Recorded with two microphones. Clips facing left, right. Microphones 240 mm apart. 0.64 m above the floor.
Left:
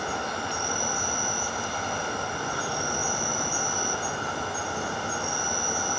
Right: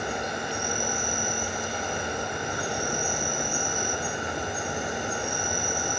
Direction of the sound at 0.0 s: 20° right (ahead or behind).